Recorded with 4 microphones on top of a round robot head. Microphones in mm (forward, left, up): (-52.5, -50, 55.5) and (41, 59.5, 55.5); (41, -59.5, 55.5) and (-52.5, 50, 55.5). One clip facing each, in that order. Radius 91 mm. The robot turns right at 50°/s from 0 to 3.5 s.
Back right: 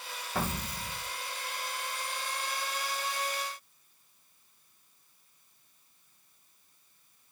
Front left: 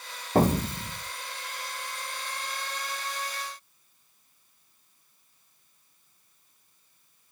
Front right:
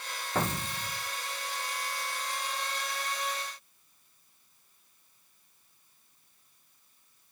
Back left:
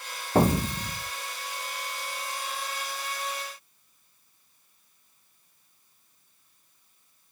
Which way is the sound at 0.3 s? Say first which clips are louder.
Front left 12 dB, back left 10 dB; 85° left.